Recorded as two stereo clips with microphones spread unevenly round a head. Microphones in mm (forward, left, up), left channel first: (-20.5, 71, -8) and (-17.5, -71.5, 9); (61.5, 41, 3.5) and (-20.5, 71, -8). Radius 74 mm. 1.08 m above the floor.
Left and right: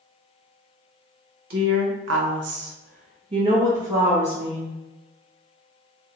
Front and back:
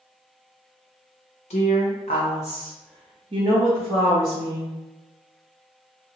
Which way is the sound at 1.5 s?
55° right.